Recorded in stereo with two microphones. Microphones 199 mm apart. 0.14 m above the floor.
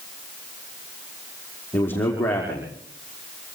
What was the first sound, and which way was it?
A man speaking, 10° left (ahead or behind).